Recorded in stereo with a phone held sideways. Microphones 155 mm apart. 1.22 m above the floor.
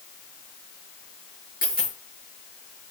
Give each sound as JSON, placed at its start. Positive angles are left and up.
{"t": 1.6, "sound": "a dropped coin", "side_deg": 70, "distance_m": 5.0}